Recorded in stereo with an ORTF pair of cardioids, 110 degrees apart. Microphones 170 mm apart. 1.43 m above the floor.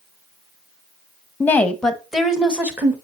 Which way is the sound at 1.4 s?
10° left.